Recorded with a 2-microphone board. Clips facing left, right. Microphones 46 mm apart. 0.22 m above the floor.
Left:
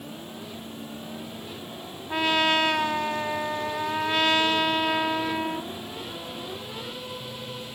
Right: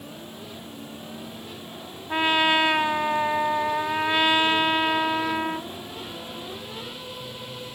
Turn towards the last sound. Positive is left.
turn(degrees=-20)  # may be behind; listen again after turning